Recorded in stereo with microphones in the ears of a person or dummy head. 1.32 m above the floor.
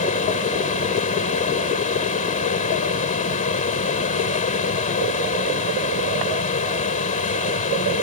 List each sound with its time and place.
0.0 s a fan: 40° left (ahead or behind)